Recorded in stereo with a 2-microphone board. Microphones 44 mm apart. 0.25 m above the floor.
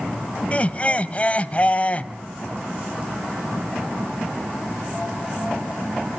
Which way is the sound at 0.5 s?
30° left (ahead or behind).